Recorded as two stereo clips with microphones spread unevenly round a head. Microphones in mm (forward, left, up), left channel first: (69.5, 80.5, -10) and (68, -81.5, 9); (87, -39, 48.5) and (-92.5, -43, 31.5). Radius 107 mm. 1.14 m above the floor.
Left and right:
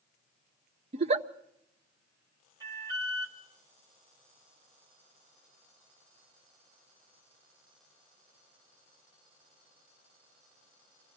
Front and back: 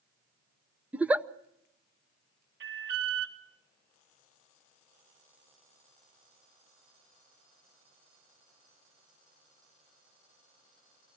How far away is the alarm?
About 3 m.